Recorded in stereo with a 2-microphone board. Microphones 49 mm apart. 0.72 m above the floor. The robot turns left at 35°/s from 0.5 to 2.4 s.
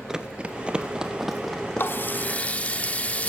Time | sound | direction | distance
0.1 | running footsteps | 10° right (ahead or behind) | 0.7 m
1.8 | a running tap | 50° left (ahead or behind) | 1.2 m